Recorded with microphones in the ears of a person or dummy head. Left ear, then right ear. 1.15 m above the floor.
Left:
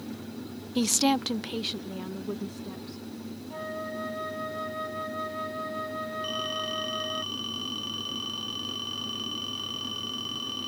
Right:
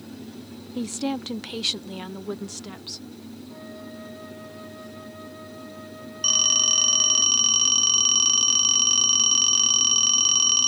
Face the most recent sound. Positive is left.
turn(degrees=-65)  # may be behind; listen again after turning